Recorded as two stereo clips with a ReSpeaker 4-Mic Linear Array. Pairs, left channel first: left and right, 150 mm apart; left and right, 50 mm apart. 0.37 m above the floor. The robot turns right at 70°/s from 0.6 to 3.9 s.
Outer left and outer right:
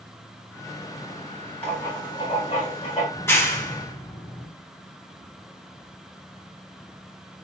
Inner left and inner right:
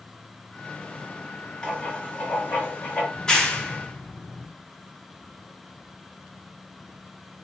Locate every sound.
1.6 s writing: 20° left, 1.6 m; by 3.0 s 120° left, 1.6 m
3.1 s a clap: 15° left (ahead or behind), 0.8 m; by 4.5 s 25° left (ahead or behind), 0.8 m